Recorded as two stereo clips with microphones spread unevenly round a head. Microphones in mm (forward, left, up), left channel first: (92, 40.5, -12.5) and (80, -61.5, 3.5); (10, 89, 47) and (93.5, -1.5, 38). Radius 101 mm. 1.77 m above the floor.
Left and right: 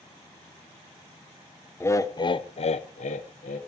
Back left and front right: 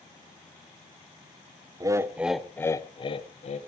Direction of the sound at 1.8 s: 15° left.